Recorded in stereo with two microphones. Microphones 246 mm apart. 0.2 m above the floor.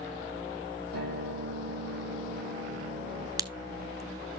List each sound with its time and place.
0.9 s a guitar: 75° right (ahead or behind), 5 m
3.4 s a crack: 15° right (ahead or behind), 0.6 m